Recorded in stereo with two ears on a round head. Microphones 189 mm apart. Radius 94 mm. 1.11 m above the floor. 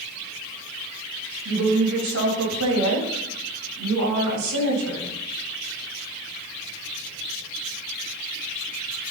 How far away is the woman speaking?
About 5 m.